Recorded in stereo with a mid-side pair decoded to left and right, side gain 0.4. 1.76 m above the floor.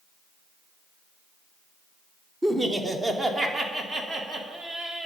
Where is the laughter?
20° right, 1.1 m; by 5.1 s 45° right, 3 m.